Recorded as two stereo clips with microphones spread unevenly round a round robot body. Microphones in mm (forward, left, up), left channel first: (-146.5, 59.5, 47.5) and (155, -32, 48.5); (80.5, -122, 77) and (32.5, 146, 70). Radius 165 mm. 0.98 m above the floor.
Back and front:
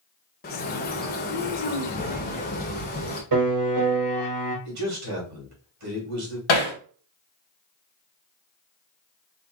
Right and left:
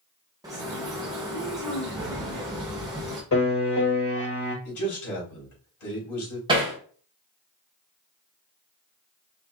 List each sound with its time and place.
0.4 s a bird: 170° left, 0.7 m
3.3 s a piano: 45° right, 3 m
4.7 s a man speaking: 55° right, 2.5 m
6.5 s hammering: 175° left, 1.0 m